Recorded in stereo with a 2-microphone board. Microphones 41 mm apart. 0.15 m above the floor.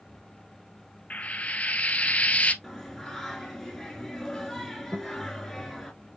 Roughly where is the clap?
No clap in this recording.